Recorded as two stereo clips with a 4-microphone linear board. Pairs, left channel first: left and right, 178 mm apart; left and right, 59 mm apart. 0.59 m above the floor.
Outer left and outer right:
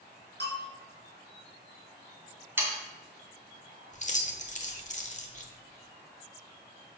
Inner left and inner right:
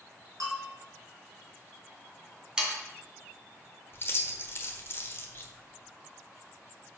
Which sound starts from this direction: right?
A bell, at 0.4 s.